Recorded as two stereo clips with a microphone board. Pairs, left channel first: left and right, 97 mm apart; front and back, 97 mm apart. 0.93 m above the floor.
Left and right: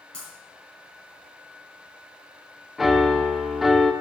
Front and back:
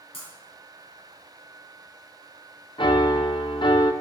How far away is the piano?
About 0.6 m.